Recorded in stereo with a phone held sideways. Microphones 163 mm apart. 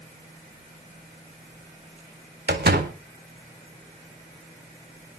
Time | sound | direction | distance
2.5 | a door slam | 85° right | 2 m